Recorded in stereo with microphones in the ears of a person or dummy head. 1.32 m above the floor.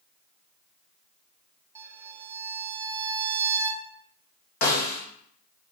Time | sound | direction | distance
1.8 | a violin | 20° right (ahead or behind) | 0.9 m
4.6 | a snare drum | 50° left (ahead or behind) | 1.9 m